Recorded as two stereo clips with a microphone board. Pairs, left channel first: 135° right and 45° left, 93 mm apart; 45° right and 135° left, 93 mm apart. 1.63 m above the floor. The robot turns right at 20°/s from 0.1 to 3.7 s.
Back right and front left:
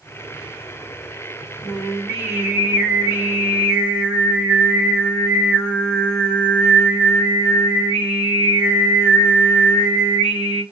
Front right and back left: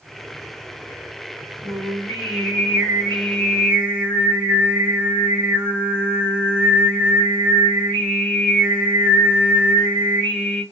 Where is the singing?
45° right, 1.7 m; by 10.6 s straight ahead, 1.7 m.